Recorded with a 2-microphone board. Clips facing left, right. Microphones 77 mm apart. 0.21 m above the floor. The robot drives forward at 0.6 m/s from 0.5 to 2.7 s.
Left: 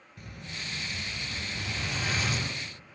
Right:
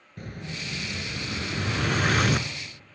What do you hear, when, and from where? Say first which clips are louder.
0.2 s an explosion: right 5 dB; 50° right (ahead or behind), 1.5 m; by 2.5 s 65° right (ahead or behind), 1.3 m